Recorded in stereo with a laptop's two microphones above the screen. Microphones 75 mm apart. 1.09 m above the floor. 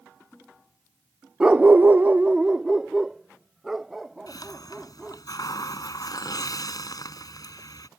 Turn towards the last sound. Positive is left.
turn(degrees=55)  # may be behind; listen again after turning